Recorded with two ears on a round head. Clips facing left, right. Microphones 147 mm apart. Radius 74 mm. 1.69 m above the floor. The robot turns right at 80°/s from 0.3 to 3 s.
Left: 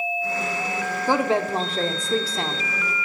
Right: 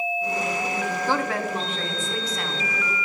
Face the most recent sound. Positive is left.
turn(degrees=175)